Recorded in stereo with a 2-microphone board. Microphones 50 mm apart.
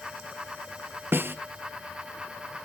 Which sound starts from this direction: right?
A snare drum, at 1.1 s.